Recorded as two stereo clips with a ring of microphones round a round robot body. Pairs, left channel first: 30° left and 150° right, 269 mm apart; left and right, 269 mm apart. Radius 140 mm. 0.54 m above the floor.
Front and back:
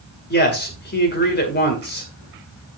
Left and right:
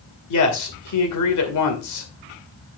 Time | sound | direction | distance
0.3 | a man speaking | 80° left | 2.5 m